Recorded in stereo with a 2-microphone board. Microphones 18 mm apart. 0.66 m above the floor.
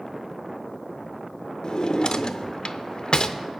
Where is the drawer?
50° left (ahead or behind), 0.5 m.